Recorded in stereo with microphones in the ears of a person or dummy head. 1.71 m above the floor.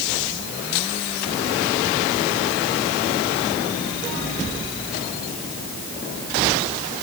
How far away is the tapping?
No tapping in this recording.